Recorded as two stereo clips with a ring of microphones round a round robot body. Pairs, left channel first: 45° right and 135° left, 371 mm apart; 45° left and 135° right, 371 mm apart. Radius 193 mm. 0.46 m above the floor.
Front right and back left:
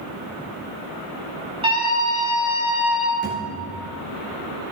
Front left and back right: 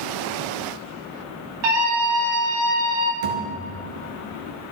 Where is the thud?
140° right, 3 m.